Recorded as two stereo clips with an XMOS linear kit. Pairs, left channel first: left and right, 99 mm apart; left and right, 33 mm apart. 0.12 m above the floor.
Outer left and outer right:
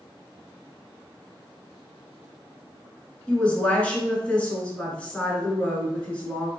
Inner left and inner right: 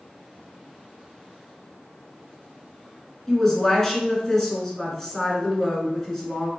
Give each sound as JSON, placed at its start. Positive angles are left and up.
{"t": 3.3, "sound": "a woman speaking", "side_deg": 15, "distance_m": 1.2}